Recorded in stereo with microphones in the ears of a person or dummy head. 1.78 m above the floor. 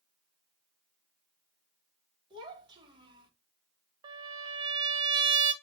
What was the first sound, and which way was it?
A child speaking, 25° right (ahead or behind).